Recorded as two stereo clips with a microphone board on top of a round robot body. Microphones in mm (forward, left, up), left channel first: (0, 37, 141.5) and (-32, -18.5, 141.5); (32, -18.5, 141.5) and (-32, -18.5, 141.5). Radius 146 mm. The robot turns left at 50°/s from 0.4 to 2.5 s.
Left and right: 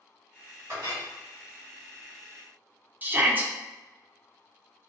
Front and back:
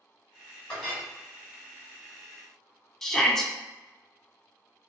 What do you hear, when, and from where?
0.7 s a clink: 75° right, 1.5 m; by 1.1 s 95° right, 1.5 m
3.0 s a shout: 80° right, 0.7 m